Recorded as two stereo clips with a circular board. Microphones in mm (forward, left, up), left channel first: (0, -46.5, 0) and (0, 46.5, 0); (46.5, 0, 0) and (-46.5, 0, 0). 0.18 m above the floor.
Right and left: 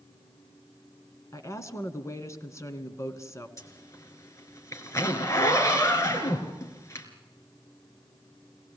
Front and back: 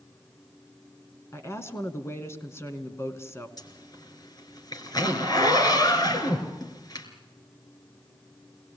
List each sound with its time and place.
1.3 s a woman speaking: 50° right, 2 m
3.6 s a zipper: 35° right, 3 m